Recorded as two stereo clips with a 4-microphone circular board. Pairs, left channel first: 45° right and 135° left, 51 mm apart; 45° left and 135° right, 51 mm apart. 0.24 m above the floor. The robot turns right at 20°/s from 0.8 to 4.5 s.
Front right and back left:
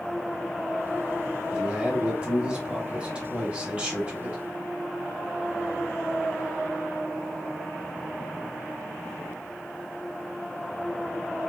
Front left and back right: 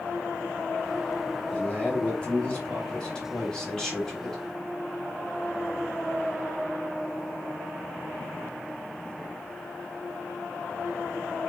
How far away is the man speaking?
About 1.0 m.